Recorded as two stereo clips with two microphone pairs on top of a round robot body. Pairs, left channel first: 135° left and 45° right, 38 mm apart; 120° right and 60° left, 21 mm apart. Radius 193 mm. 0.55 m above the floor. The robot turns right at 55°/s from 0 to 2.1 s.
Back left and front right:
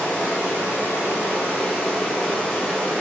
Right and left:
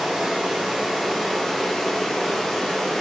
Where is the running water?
80° left, 1.2 m; by 3.0 s 165° right, 1.2 m.